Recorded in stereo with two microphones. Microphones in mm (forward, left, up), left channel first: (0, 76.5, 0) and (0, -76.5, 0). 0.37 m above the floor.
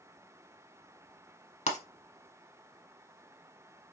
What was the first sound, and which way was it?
Breaking glass, 45° left (ahead or behind).